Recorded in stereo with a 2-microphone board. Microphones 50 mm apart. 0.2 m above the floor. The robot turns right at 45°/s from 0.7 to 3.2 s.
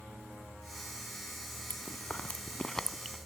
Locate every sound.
1.7 s chewing: 45° left (ahead or behind), 0.7 m; by 3.2 s centre (ahead or behind), 0.7 m